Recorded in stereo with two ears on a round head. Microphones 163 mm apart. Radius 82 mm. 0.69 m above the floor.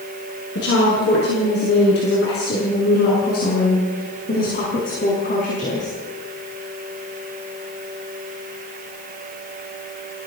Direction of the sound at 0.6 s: 65° left (ahead or behind).